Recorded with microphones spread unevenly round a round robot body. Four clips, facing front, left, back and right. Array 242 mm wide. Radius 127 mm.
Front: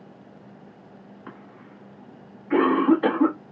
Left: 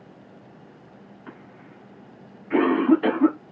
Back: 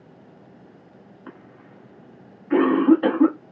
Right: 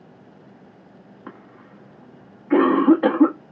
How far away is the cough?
About 1.3 m.